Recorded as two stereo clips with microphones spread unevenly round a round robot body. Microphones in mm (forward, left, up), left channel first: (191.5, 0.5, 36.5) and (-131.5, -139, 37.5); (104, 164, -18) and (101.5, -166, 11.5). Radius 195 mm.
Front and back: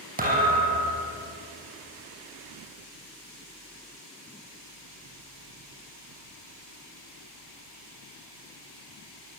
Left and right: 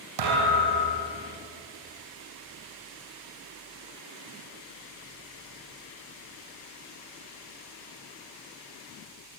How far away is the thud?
About 6.5 m.